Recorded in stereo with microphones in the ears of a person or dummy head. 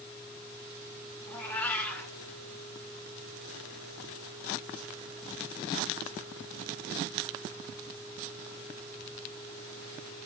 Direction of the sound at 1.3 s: 10° left (ahead or behind).